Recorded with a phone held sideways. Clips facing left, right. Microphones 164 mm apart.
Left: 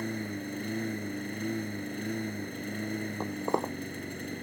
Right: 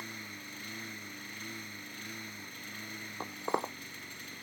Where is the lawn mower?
55° left (ahead or behind).